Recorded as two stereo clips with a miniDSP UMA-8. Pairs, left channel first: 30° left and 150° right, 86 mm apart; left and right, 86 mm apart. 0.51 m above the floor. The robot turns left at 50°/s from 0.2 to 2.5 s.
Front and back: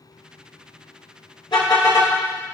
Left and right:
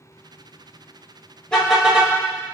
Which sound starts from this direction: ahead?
A car horn, at 1.5 s.